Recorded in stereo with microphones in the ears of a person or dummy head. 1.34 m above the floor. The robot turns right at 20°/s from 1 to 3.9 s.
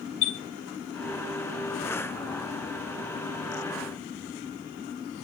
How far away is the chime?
About 0.9 m.